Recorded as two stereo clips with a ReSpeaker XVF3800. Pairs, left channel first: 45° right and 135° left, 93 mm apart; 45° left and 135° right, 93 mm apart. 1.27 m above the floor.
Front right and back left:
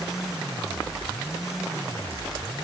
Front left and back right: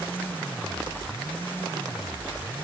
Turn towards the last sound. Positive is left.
No sound to turn to.